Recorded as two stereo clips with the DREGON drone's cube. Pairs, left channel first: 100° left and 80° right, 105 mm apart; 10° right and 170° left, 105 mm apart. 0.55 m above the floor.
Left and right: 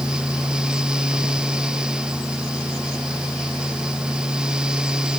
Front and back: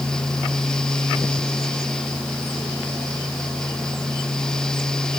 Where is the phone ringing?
I don't hear a phone ringing.